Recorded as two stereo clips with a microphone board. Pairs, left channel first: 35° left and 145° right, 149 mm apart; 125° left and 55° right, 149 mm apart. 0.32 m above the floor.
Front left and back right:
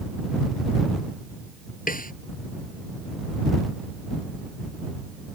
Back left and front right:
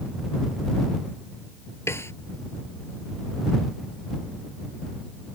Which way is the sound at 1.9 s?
50° left.